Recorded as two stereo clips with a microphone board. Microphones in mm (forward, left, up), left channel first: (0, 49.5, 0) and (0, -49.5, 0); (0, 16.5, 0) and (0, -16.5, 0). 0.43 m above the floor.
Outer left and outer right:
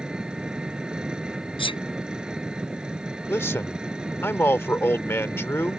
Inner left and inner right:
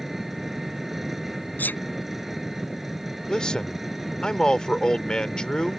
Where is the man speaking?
25° left (ahead or behind).